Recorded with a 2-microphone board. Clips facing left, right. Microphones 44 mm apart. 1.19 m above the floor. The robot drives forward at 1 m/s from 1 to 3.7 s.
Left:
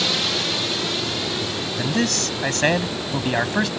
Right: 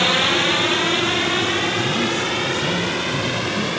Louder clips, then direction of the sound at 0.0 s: Right 6 dB; 40° right (ahead or behind).